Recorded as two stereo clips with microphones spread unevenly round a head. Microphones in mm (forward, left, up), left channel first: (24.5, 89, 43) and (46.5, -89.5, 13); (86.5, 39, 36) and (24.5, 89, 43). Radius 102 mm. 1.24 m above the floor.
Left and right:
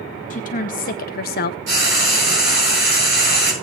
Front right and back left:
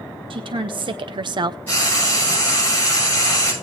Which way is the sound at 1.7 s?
120° right.